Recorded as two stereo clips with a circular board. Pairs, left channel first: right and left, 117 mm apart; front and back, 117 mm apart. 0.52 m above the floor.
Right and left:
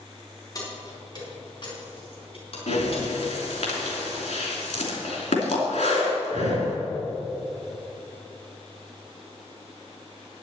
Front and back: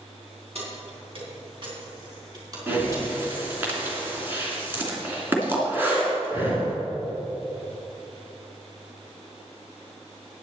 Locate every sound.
0.6 s keys jangling: 145° right, 4 m; by 3.7 s 110° right, 4 m
2.7 s breathing: 105° right, 3 m